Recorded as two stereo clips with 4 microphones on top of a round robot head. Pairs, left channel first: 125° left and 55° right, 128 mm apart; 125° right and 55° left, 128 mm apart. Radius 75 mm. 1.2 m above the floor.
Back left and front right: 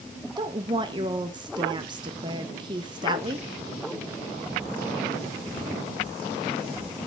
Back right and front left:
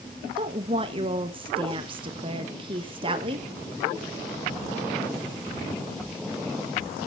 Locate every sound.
0.4 s a woman speaking: 5° left, 1.2 m